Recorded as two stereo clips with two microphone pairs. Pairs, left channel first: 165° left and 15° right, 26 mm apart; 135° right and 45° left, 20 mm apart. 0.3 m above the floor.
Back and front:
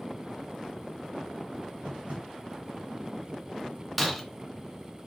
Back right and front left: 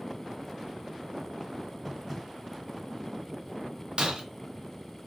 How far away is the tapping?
About 3 m.